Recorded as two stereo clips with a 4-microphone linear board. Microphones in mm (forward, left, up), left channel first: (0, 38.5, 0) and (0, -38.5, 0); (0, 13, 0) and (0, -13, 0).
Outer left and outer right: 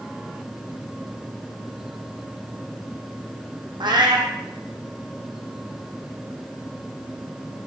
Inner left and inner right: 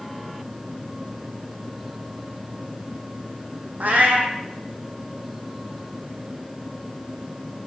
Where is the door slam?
No door slam in this recording.